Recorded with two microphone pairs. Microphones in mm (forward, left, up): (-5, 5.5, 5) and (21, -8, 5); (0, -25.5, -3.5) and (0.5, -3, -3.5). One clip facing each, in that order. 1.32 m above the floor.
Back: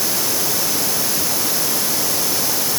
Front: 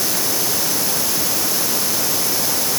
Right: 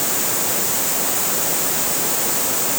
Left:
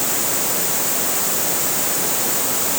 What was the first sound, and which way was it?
Only background noise.